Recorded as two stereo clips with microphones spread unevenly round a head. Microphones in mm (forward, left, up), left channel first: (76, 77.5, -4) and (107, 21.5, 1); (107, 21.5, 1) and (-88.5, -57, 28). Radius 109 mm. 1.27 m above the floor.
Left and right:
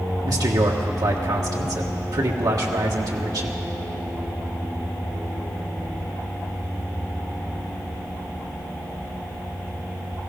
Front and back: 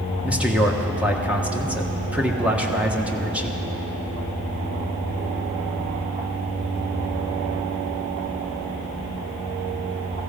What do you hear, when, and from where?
0.2 s a man speaking: 70° right, 1.4 m